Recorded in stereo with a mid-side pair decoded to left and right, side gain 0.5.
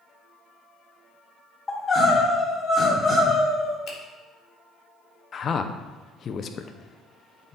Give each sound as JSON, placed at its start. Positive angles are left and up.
{"t": 1.7, "sound": "crying", "azimuth_deg": 25, "distance_m": 3.0}
{"t": 3.9, "sound": "a finger snap", "azimuth_deg": 60, "distance_m": 2.0}
{"t": 5.3, "sound": "a man speaking", "azimuth_deg": 45, "distance_m": 0.7}